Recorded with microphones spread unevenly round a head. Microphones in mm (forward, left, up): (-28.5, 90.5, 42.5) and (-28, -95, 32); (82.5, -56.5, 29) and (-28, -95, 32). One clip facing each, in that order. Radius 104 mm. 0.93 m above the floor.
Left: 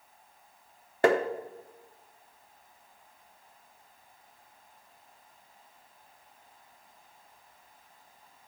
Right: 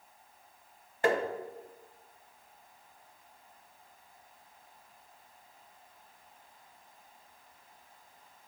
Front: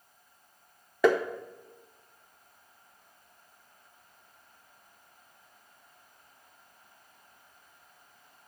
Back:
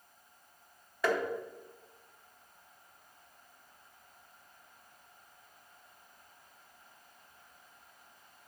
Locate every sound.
1.0 s tapping: 50° left, 0.6 m